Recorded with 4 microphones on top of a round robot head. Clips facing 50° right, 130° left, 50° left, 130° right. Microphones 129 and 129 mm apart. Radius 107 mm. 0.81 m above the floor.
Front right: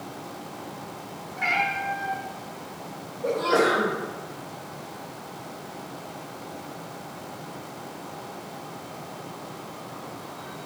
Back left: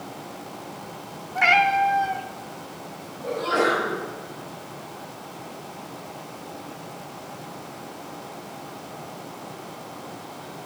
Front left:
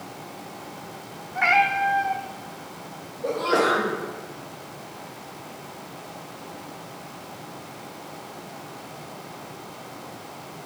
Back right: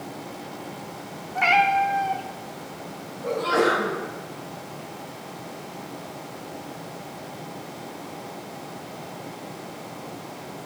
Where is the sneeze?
5° right, 3 m.